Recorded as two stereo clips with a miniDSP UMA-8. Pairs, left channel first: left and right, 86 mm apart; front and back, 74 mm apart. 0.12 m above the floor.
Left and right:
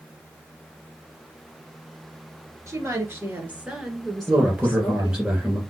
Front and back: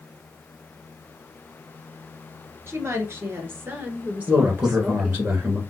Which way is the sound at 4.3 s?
150° right.